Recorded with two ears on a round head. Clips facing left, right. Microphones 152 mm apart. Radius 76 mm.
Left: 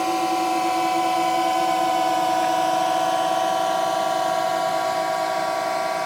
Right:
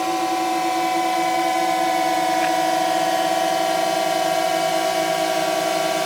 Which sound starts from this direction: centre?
A drone, at 0.0 s.